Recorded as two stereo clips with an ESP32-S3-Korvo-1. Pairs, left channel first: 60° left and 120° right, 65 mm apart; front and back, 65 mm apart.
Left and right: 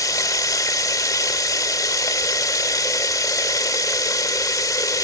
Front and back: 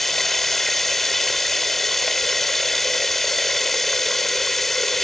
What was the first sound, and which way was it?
Running water, 85° left.